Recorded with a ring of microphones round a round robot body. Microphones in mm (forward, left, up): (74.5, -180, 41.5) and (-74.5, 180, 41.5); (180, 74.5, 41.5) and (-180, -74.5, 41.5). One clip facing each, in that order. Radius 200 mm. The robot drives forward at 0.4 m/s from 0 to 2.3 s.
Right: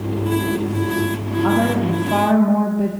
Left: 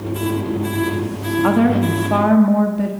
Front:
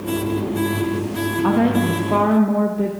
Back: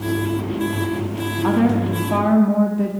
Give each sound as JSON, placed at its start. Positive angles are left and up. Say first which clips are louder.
{"t": 1.4, "sound": "a woman speaking", "louder": "left 3 dB, even", "azimuth_deg": 110, "distance_m": 1.0}